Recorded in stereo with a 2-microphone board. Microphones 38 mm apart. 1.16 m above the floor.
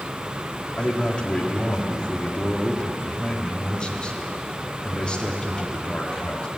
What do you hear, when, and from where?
0.7 s a man speaking: 25° left (ahead or behind), 2.0 m